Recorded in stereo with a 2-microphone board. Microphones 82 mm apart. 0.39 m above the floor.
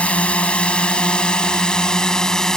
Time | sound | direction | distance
0.0 | a drone | 15° left (ahead or behind) | ?